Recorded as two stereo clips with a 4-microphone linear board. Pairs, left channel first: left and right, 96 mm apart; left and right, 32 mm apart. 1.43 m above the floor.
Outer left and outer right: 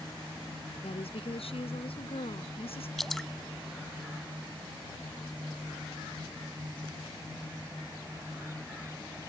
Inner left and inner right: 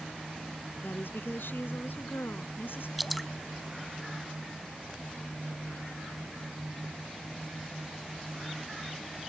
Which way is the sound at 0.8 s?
85° left.